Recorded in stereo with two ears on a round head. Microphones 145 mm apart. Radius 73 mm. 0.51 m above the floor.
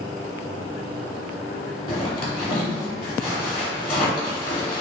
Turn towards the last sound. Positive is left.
turn(degrees=35)  # may be behind; listen again after turning